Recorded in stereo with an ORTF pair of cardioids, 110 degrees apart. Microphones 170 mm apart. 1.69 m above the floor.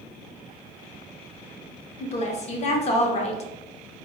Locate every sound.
2.0 s a woman speaking: 40° left, 0.6 m